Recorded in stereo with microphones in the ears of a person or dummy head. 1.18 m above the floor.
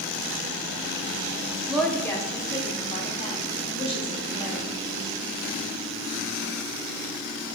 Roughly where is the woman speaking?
Centre.